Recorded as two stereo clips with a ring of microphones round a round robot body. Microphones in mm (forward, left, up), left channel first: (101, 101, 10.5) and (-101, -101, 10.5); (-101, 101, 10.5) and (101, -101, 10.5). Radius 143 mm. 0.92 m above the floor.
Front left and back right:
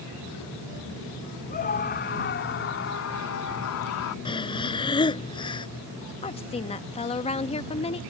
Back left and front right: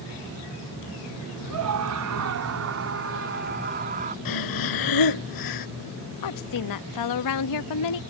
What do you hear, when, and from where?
1.5 s a scream: 15° right; by 4.2 s 15° left
4.2 s breathing: 120° left
6.2 s a woman speaking: 115° left